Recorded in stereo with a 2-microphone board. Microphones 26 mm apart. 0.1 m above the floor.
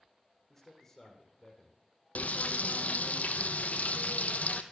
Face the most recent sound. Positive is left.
turn(degrees=75)  # may be behind; listen again after turning